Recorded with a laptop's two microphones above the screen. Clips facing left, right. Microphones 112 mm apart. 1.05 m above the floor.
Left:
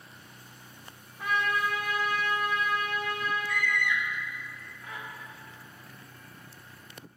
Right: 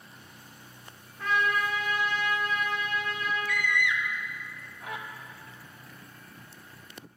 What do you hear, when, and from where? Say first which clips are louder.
1.2 s a trumpet: right 1 dB; 10° left (ahead or behind), 2.5 m
3.5 s a scream: right 1 dB; 65° right (ahead or behind), 0.8 m